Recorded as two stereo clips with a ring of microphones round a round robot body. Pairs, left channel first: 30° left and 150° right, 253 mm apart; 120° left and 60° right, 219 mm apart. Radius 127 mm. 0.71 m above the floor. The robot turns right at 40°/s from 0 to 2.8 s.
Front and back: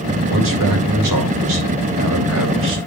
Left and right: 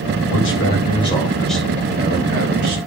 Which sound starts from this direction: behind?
A man speaking, at 0.3 s.